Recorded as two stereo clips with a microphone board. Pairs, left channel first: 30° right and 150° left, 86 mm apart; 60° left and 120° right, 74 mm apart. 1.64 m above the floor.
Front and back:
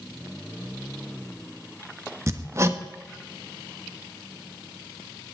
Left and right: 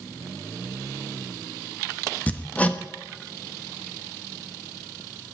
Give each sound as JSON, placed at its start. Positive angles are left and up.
{"t": 2.3, "sound": "hammering", "azimuth_deg": 120, "distance_m": 1.1}